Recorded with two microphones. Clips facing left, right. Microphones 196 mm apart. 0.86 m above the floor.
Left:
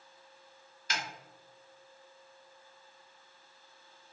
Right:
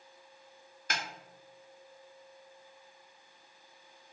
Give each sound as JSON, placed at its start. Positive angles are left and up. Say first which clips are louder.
{"t": 0.9, "sound": "a snare drum", "louder": "right 1 dB", "side_deg": -55, "distance_m": 0.5}